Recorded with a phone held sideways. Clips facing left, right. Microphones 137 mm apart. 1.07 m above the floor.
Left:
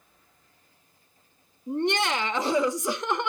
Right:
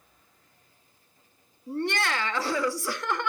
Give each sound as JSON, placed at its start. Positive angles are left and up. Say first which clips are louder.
{"t": 1.7, "sound": "laughter", "louder": "left 3 dB", "side_deg": 20, "distance_m": 0.8}